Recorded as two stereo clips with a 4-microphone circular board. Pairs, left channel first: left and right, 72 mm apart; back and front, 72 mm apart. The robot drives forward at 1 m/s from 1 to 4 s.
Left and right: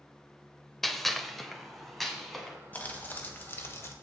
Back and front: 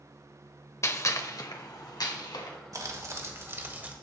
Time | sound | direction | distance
0.8 | a gunshot | 175° left | 0.7 m
2.7 | crumpling | 30° left | 2 m